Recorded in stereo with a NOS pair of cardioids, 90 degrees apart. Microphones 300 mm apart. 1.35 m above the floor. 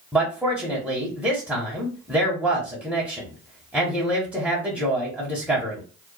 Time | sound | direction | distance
0.1 | a man speaking | 5° right | 1.2 m